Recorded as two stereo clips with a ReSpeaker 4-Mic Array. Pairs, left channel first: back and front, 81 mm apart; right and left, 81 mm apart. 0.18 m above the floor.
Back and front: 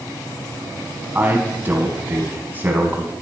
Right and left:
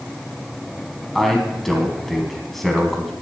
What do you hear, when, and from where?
1.1 s a man speaking: 5° right, 1.5 m